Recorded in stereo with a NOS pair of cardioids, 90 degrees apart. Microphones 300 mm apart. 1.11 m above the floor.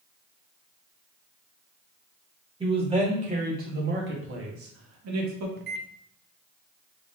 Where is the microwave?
35° right, 0.6 m.